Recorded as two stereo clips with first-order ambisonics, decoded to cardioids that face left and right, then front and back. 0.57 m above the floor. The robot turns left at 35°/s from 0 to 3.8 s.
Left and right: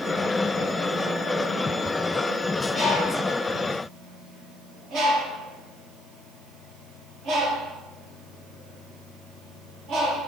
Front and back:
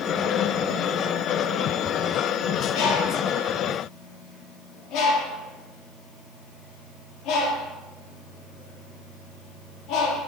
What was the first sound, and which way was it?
A bird, 5° right.